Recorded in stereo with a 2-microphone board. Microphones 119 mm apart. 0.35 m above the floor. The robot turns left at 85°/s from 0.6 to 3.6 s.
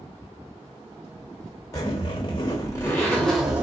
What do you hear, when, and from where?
1.7 s a zipper: 140° left, 1.6 m; by 3.6 s 20° right, 1.6 m